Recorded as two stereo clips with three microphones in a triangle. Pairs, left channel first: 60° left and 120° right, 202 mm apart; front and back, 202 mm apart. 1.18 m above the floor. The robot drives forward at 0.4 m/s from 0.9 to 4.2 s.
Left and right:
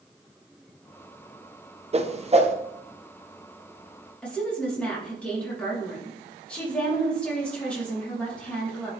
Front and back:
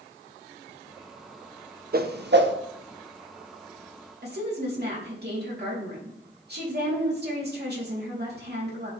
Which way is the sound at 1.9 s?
165° right.